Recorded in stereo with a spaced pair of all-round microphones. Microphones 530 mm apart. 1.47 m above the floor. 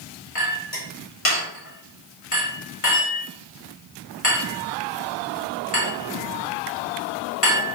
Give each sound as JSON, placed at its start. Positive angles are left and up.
{"t": 0.3, "sound": "a clink", "side_deg": 75, "distance_m": 2.5}